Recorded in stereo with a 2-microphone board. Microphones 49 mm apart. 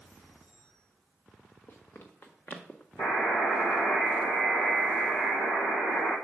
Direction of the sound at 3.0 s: 65° left (ahead or behind).